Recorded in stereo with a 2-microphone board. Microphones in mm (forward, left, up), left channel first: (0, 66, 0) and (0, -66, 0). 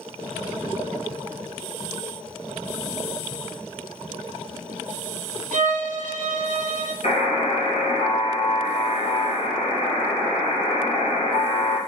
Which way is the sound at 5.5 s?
70° right (ahead or behind).